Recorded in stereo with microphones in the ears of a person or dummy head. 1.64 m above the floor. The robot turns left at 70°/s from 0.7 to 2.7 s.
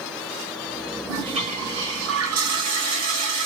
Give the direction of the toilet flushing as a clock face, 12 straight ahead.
1 o'clock.